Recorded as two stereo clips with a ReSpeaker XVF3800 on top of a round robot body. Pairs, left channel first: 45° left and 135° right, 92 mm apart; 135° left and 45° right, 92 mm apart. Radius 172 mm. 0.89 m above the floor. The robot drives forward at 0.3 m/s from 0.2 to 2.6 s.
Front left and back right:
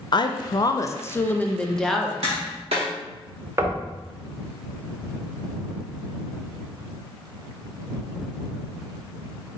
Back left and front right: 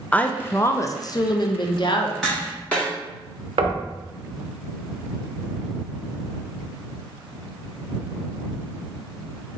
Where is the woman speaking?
65° left, 0.6 m; by 2.1 s 135° left, 0.7 m.